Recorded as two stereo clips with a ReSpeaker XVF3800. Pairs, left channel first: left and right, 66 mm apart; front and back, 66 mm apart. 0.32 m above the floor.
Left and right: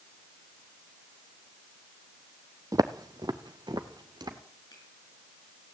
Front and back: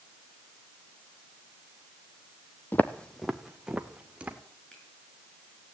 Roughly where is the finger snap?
Left.